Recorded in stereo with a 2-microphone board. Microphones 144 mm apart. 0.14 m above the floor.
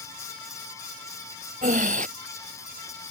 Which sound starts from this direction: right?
Breathing, at 1.6 s.